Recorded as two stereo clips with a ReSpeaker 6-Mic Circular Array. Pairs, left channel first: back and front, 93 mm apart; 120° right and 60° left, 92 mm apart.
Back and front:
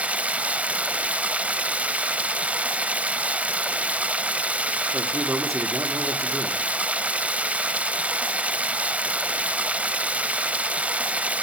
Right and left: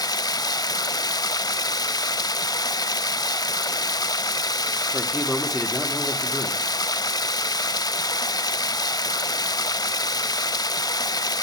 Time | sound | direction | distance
0.0 | running water | 75° right | 0.8 m
4.9 | a man speaking | 30° right | 1.4 m